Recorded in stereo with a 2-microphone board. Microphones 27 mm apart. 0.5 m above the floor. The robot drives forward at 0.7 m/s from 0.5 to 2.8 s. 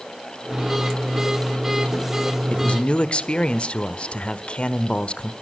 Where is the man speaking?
50° left (ahead or behind), 1.2 m; by 5.3 s 45° left (ahead or behind), 1.2 m.